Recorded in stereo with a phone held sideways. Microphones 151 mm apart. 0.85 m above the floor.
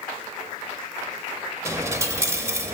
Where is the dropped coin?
20° right (ahead or behind), 0.6 m.